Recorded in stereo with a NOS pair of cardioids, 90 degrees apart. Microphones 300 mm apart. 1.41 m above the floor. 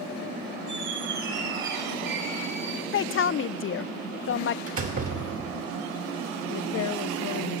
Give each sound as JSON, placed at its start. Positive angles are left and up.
{"t": 0.7, "sound": "a squeak", "azimuth_deg": -65, "distance_m": 7.5}
{"t": 2.9, "sound": "a woman speaking", "azimuth_deg": 45, "distance_m": 0.7}
{"t": 4.7, "sound": "a door slam", "azimuth_deg": -50, "distance_m": 3.5}
{"t": 6.5, "sound": "a woman speaking", "azimuth_deg": 70, "distance_m": 1.7}